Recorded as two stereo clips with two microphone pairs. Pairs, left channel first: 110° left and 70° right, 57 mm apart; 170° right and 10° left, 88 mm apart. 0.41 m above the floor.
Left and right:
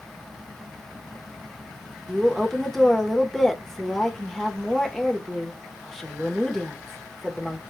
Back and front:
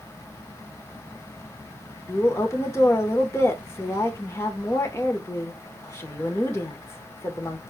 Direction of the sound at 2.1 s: 165° right.